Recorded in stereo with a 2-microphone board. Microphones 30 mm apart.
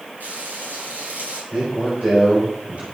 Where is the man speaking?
45° right (ahead or behind), 4 m.